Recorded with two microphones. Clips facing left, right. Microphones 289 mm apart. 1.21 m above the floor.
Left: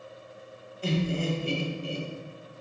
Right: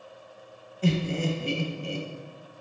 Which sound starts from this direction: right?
Laughter, at 0.8 s.